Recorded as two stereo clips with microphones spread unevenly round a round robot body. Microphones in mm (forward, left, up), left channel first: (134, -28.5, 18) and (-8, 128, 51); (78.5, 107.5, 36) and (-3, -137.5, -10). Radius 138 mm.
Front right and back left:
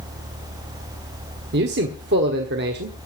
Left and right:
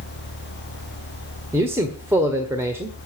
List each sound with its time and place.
1.5 s a man speaking: 175° left, 1.4 m